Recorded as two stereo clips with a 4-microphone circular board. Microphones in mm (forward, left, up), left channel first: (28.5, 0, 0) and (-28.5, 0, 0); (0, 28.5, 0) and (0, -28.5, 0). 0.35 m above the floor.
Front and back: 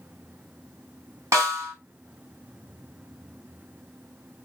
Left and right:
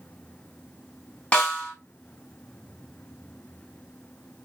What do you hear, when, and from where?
1.3 s a snare drum: 160° left, 1.8 m